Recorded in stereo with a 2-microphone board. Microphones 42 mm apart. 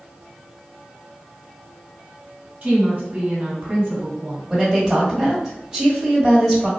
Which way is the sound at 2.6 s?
40° right (ahead or behind).